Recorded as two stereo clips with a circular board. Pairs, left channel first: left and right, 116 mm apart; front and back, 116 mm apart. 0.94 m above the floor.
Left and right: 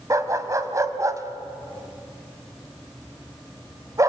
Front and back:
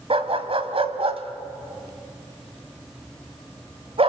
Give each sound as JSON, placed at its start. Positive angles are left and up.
{"t": 0.1, "sound": "a dog barking", "azimuth_deg": -150, "distance_m": 1.6}